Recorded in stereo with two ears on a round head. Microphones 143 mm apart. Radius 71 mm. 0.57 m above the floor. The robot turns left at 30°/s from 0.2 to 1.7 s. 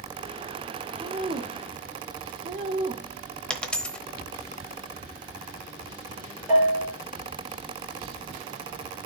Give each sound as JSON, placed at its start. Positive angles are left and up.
{"t": 1.0, "sound": "a woman speaking", "side_deg": -25, "distance_m": 1.3}
{"t": 3.5, "sound": "a dropped coin", "side_deg": 5, "distance_m": 0.9}
{"t": 6.5, "sound": "a bell", "side_deg": -10, "distance_m": 5.5}